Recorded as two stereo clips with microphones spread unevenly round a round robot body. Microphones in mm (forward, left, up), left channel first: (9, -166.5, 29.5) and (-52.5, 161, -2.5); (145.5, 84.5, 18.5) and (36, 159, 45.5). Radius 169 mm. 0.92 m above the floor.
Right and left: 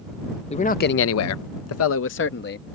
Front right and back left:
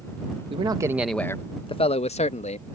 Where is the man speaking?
155° right; by 2.8 s 15° right.